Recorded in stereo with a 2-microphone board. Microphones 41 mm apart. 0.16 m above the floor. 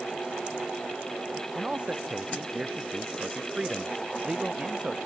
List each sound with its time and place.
1.6 s a man speaking: 25° right (ahead or behind)